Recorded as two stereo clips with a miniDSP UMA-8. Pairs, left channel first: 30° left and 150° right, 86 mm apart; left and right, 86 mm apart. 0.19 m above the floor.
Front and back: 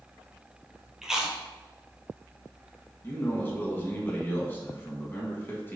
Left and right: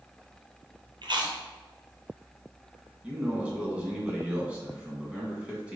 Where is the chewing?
70° right, 0.8 m.